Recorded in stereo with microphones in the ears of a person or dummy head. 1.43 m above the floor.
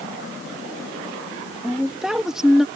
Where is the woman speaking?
Centre (ahead or behind).